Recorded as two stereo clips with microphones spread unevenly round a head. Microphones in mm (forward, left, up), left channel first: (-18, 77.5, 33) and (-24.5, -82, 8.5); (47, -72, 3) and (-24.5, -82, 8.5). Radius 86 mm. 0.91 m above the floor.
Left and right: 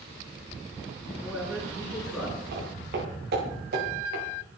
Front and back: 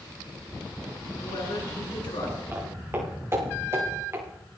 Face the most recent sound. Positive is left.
turn(degrees=-120)